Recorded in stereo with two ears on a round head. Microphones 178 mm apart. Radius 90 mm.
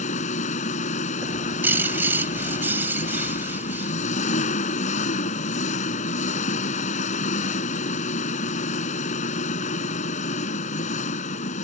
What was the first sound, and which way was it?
An engine running, 40° left (ahead or behind).